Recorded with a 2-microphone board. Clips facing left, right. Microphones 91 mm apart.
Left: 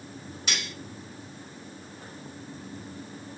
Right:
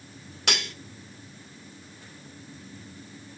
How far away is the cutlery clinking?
About 1.4 m.